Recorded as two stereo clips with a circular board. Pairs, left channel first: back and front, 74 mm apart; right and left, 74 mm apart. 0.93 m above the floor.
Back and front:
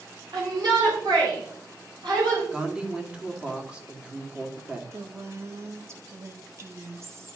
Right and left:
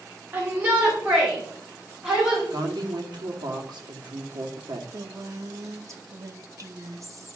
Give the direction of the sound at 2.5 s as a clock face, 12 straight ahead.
9 o'clock.